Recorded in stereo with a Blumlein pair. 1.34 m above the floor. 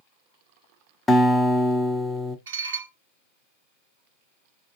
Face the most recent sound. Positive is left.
turn(degrees=-60)